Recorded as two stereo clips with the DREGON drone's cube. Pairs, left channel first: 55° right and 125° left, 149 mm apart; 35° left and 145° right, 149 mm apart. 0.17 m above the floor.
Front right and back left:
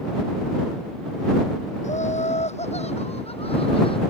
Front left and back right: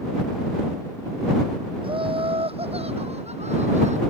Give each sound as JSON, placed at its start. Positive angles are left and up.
{"t": 1.8, "sound": "laughter", "azimuth_deg": -95}